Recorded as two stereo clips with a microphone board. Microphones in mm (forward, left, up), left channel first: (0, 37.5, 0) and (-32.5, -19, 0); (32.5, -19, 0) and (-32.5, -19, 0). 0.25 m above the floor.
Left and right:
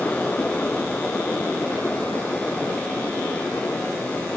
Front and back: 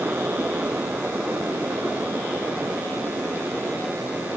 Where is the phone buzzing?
I don't hear a phone buzzing.